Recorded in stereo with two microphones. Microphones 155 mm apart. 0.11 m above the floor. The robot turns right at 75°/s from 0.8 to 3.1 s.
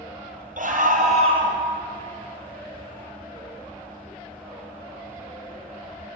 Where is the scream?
80° right, 2.5 m; by 1.6 s 20° right, 2.5 m.